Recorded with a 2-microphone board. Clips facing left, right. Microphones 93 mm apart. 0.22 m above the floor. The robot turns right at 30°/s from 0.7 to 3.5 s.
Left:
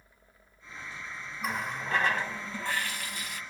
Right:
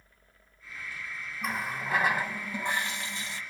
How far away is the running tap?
About 0.7 m.